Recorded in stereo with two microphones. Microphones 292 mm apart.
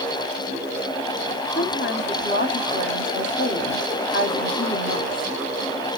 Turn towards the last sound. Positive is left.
turn(degrees=40)  # may be behind; listen again after turning